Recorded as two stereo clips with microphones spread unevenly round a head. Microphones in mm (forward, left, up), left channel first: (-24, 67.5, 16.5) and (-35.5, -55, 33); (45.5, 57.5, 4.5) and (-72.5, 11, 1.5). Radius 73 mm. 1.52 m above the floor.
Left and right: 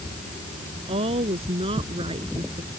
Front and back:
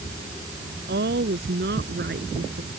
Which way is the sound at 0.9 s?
135° right.